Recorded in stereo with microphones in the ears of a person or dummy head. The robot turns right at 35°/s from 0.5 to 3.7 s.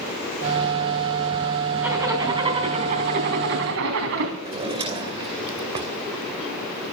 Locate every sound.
1.8 s a zipper: 170° right, 3.5 m; by 4.3 s 105° right, 3.5 m
4.4 s a drawer: 30° right (ahead or behind), 2.5 m